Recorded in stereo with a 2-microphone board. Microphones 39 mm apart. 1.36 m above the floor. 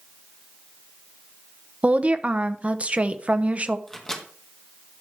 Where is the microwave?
10° left (ahead or behind), 1.7 m.